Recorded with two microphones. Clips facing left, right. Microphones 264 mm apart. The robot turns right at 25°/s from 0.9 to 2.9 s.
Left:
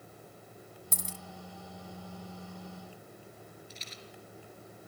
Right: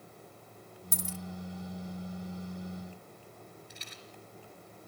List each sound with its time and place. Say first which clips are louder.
0.9 s a dropped coin: right 6 dB; 45° left (ahead or behind), 0.8 m; by 1.2 s 40° left (ahead or behind), 0.8 m
3.7 s a rattle: left 1 dB; 65° right (ahead or behind), 3 m